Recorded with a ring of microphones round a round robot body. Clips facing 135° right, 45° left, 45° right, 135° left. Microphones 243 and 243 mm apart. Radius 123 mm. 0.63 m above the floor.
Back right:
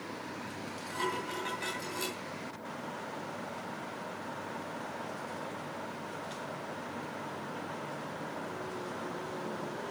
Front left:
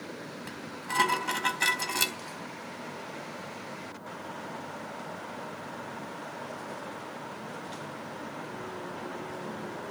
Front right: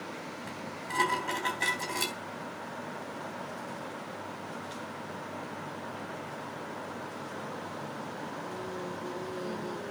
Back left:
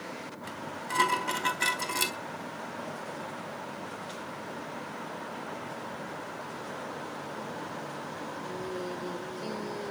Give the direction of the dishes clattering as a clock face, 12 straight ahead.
10 o'clock.